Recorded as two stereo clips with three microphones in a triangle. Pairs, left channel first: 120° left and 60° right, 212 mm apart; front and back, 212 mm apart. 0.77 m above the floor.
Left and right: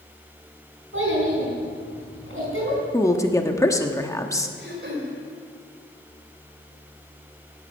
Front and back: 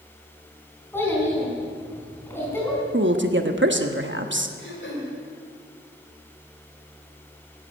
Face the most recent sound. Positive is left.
turn(degrees=-25)